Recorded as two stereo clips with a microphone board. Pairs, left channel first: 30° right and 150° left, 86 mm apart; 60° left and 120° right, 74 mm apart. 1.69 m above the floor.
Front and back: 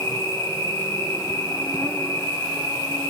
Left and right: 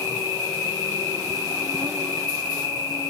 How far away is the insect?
About 1.0 m.